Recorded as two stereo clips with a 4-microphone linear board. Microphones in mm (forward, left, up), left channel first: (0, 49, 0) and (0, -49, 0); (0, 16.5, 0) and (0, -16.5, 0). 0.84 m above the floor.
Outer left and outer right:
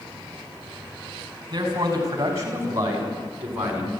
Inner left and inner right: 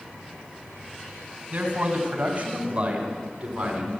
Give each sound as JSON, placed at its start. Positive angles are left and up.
{"t": 1.5, "sound": "a man speaking", "side_deg": -40, "distance_m": 5.0}